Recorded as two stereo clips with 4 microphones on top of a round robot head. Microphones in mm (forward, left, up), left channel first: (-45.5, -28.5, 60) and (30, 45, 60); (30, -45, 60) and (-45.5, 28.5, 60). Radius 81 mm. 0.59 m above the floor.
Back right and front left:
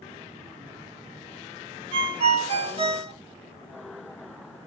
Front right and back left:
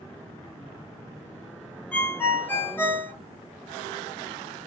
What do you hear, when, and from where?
1.9 s a ringtone: 30° left, 1.1 m